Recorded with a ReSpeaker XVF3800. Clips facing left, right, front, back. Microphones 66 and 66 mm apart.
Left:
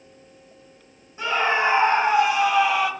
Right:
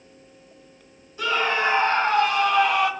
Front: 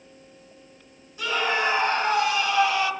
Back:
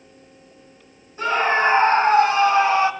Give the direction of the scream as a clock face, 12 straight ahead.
7 o'clock.